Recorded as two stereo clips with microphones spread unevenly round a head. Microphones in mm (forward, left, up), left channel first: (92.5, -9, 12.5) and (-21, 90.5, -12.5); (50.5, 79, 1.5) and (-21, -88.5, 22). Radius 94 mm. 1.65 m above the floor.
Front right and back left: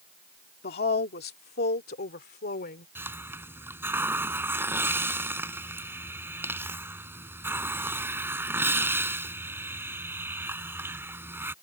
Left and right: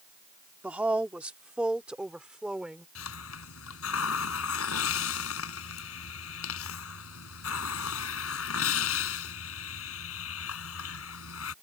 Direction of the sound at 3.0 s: 60° left.